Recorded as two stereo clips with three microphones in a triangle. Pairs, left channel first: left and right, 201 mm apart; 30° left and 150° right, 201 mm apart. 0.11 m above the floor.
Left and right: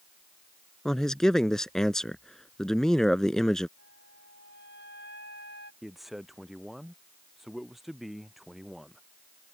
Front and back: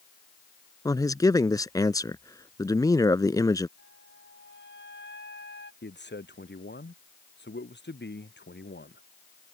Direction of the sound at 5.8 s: Straight ahead.